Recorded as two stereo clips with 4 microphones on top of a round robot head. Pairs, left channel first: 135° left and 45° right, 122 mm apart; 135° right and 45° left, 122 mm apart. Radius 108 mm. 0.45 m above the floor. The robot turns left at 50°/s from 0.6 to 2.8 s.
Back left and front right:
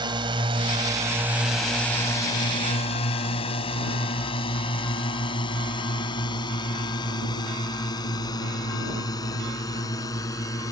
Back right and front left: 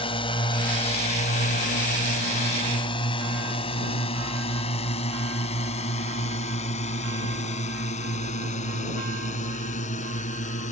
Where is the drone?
95° right; by 10.7 s 160° right.